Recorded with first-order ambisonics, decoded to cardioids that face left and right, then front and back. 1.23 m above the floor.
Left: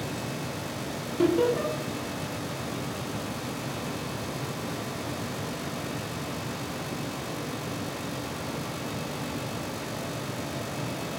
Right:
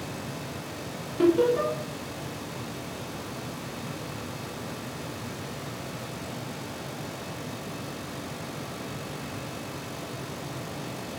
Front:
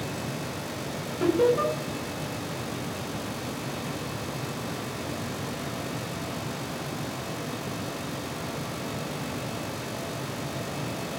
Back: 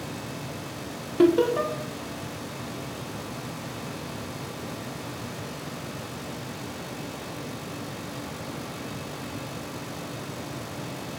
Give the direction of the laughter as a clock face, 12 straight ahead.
6 o'clock.